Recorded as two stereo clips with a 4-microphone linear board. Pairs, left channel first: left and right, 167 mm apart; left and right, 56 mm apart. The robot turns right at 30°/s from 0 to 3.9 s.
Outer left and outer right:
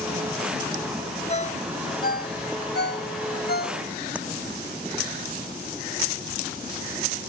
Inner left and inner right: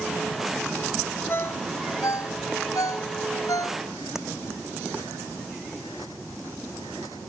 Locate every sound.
1.3 s a ringtone: 40° left (ahead or behind); by 3.8 s 60° left (ahead or behind)
4.2 s tapping: 10° right (ahead or behind)